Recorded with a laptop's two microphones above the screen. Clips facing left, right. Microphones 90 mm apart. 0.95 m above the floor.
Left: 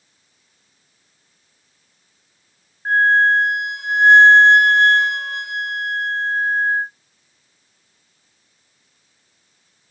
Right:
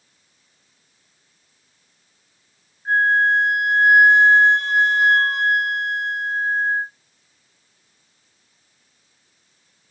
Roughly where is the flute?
Left.